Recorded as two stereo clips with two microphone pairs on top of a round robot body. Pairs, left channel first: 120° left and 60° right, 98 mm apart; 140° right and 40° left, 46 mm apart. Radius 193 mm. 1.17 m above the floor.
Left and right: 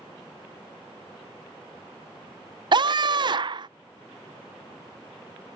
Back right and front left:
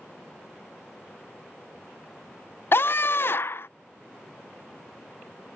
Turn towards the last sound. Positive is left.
turn(degrees=-100)